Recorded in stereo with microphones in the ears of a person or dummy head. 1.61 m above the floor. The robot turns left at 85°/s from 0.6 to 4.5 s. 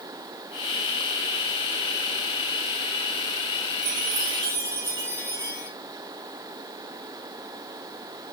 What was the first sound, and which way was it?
A chime, 110° right.